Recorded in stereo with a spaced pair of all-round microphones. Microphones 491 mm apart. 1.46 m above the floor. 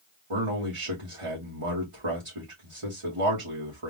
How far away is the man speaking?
About 1.8 m.